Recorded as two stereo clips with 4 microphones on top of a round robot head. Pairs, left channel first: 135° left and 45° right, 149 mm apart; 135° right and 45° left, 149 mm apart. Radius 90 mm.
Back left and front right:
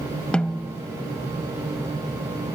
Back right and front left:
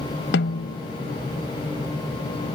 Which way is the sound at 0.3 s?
140° right.